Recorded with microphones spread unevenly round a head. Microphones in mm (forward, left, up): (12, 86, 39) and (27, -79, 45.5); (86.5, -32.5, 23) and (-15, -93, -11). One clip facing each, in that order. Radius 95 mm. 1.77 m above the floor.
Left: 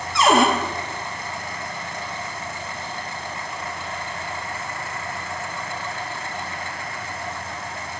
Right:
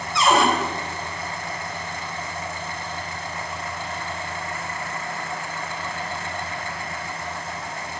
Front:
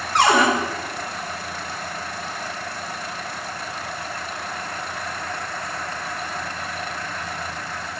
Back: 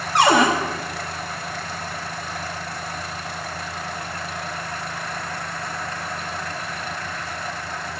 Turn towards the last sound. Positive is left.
turn(degrees=100)